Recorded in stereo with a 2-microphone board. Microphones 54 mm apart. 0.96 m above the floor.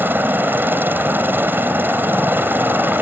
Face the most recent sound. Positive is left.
turn(degrees=-35)  # may be behind; listen again after turning